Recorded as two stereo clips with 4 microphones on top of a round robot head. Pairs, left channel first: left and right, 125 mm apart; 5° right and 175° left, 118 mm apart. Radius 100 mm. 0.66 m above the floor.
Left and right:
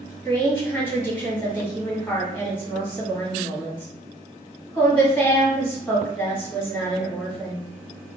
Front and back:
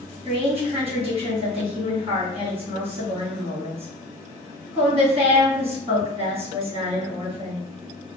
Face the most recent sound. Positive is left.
turn(degrees=160)